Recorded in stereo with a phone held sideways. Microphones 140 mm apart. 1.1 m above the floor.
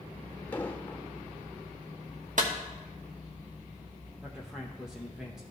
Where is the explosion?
15° left (ahead or behind), 0.9 m.